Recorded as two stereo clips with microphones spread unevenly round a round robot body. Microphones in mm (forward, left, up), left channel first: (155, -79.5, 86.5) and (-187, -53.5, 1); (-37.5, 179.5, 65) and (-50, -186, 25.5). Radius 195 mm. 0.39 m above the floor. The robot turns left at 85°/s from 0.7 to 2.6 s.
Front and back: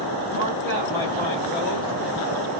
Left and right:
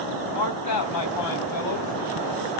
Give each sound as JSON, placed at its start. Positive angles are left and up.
{"t": 0.3, "sound": "a man speaking", "azimuth_deg": 110, "distance_m": 2.5}